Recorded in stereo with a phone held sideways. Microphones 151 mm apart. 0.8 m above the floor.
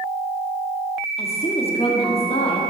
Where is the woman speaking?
40° left (ahead or behind), 1.6 m.